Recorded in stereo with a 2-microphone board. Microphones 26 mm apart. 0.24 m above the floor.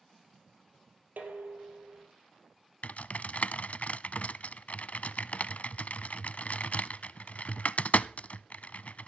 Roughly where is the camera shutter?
I don't hear a camera shutter.